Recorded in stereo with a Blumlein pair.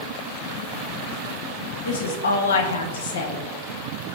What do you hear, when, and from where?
1.9 s a woman speaking: 60° left, 0.6 m